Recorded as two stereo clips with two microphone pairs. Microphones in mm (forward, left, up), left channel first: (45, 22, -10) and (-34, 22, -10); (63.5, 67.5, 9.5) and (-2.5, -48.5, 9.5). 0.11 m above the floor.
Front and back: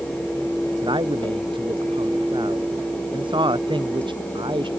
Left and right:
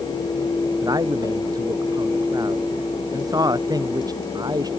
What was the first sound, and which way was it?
A man speaking, straight behind.